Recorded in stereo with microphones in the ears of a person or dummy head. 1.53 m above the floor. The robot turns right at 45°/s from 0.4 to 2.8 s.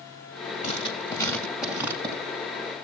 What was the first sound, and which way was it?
Writing, 135° left.